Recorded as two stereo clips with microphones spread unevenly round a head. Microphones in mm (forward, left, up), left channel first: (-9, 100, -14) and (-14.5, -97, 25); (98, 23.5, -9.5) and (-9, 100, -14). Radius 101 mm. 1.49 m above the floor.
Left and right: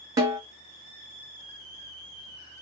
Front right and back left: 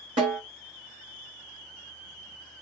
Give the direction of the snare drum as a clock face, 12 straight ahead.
5 o'clock.